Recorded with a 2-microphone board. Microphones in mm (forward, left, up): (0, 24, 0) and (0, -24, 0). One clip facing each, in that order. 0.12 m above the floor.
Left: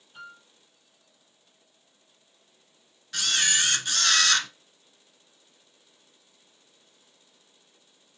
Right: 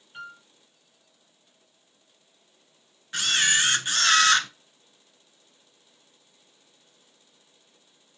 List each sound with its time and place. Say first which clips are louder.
0.1 s a piano: right 4 dB; 45° right (ahead or behind), 3 m
3.1 s a camera shutter: right 3 dB; 25° right (ahead or behind), 0.8 m